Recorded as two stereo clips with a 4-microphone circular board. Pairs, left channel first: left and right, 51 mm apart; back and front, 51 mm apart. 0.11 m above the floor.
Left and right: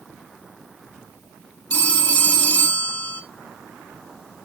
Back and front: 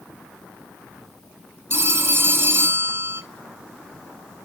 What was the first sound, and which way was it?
A phone ringing, 40° left.